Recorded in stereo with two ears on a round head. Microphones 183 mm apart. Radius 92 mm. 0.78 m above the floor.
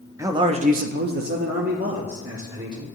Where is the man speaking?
15° right (ahead or behind), 0.7 m; by 3.0 s 35° right (ahead or behind), 2.0 m.